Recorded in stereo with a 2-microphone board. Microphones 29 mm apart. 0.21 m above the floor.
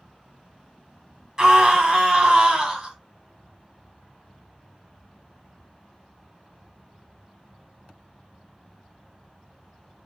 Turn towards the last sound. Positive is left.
turn(degrees=-30)  # may be behind; listen again after turning